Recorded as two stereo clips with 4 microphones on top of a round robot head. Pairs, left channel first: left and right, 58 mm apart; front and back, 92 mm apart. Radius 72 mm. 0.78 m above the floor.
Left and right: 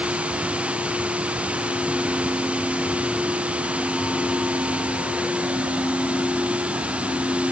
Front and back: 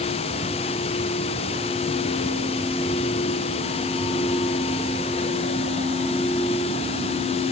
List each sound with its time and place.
0.0 s running water: 20° right